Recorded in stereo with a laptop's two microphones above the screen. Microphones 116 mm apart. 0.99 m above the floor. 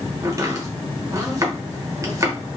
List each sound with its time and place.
0.2 s chopping: 25° right (ahead or behind), 1.0 m